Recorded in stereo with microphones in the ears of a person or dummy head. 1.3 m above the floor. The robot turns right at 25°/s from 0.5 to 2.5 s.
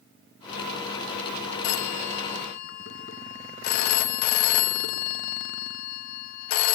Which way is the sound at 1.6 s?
75° left (ahead or behind).